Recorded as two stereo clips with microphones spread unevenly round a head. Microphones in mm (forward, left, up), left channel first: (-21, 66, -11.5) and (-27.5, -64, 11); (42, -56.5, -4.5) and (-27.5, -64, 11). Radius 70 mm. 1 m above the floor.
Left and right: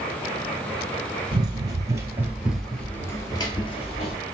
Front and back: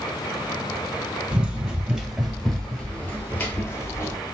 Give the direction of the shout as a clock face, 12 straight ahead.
No shout in this recording.